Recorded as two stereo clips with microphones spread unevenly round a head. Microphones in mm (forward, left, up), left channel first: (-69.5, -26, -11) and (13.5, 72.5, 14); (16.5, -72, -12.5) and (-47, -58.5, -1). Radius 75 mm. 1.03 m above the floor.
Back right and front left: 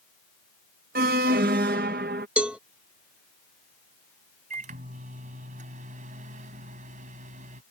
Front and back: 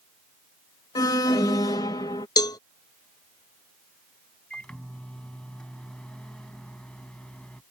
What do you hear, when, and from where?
0.9 s an alarm: 15° left
2.4 s a cowbell: 35° right
4.5 s a microwave: 75° left